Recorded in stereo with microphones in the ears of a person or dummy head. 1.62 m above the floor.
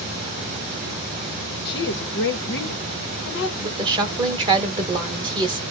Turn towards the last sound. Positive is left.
turn(degrees=-25)  # may be behind; listen again after turning